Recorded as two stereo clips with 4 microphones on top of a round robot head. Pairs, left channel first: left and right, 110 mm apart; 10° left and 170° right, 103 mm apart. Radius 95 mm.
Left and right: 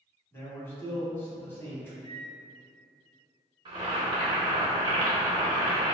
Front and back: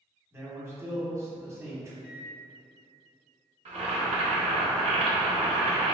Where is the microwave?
160° right, 1.3 m.